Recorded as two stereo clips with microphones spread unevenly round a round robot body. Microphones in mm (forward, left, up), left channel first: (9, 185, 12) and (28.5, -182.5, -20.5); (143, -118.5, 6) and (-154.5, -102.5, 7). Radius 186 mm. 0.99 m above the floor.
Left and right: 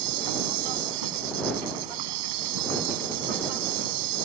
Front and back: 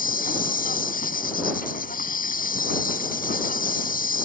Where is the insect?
65° right.